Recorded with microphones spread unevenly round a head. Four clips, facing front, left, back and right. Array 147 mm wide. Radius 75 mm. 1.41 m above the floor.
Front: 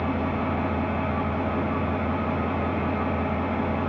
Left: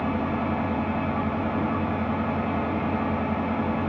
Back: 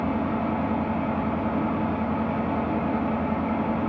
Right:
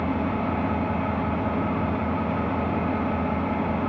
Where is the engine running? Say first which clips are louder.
Right 1 dB, back 1 dB; 175° right, 0.9 m.